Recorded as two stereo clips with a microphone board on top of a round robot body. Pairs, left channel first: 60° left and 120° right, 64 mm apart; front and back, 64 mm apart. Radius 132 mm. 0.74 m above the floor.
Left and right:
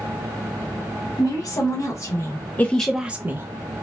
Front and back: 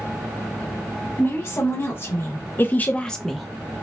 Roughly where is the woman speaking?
Ahead left.